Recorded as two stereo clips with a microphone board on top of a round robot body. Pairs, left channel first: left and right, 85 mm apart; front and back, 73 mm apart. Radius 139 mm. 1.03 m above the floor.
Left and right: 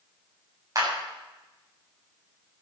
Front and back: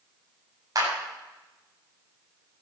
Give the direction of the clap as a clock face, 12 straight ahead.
5 o'clock.